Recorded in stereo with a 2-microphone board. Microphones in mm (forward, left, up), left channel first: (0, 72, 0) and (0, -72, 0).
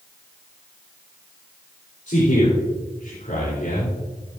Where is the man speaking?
65° left (ahead or behind), 4.5 m; by 4.0 s 75° left (ahead or behind), 3.5 m.